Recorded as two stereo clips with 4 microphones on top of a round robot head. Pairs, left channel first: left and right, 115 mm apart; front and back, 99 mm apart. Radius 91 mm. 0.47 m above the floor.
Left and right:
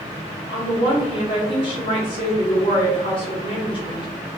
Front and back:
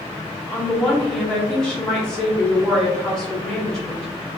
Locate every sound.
0.5 s a woman speaking: 80° left, 1.0 m